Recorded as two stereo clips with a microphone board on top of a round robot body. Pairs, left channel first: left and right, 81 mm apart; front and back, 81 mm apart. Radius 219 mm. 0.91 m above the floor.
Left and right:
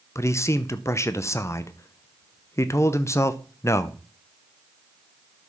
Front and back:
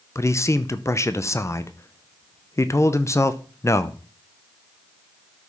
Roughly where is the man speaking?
Ahead left.